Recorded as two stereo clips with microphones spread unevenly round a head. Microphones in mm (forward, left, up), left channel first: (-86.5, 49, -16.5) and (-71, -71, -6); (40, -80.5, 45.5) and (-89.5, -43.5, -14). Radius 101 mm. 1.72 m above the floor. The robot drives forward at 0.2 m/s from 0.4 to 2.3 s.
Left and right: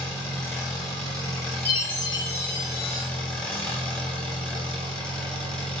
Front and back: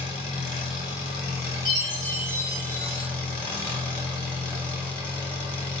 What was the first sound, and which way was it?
An engine running, 5° left.